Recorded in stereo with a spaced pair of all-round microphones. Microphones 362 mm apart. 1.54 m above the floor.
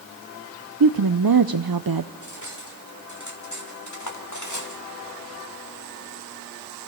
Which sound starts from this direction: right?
A woman speaking, at 0.8 s.